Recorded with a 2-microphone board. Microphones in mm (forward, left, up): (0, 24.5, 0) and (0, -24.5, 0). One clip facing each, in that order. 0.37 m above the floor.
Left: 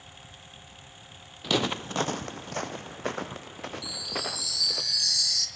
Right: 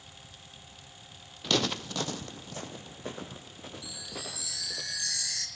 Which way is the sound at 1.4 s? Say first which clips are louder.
Left 2 dB; 5° left (ahead or behind).